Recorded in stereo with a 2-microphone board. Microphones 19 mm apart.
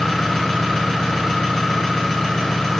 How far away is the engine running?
About 5.5 m.